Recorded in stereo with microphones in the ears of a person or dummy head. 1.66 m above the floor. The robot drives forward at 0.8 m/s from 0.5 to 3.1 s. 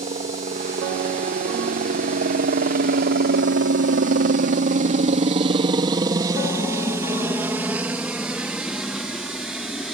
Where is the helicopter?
35° right (ahead or behind); by 10.0 s centre (ahead or behind).